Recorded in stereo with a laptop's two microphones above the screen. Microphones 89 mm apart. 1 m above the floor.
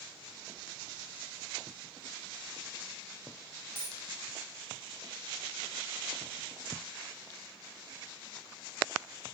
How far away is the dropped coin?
About 0.7 m.